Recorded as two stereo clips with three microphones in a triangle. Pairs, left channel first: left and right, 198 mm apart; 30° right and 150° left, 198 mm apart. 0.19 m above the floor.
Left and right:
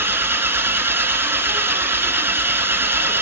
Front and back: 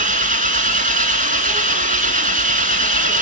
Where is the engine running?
165° right, 1.4 m.